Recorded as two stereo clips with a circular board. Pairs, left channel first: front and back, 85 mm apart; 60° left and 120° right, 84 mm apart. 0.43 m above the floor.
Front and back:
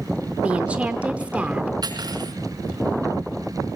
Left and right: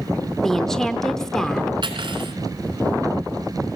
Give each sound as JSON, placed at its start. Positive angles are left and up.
{"t": 0.4, "sound": "a woman speaking", "azimuth_deg": 135, "distance_m": 0.8}
{"t": 1.8, "sound": "cutlery clinking", "azimuth_deg": -145, "distance_m": 2.5}